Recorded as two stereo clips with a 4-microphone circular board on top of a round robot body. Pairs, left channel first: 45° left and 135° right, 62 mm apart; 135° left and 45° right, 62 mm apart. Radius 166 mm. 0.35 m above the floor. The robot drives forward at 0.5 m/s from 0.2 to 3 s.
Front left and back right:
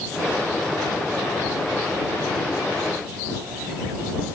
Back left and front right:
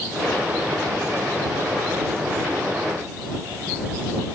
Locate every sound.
Only background noise.